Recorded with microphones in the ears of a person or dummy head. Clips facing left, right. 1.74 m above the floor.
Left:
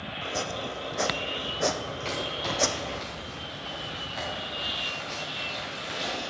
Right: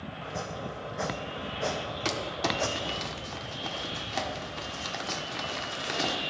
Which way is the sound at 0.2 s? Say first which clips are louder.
Left 4 dB; 40° left (ahead or behind).